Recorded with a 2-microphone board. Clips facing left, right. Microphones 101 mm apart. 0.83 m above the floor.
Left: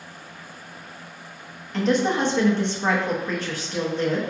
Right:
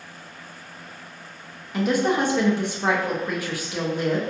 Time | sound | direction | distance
1.7 | a woman speaking | 10° right (ahead or behind) | 0.6 m